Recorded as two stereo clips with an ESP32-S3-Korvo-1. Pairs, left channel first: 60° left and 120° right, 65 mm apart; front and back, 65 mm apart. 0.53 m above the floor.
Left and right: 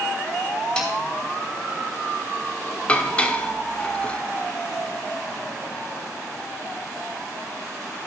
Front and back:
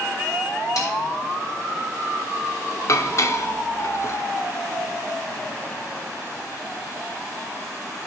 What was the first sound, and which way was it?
A snare drum, 15° right.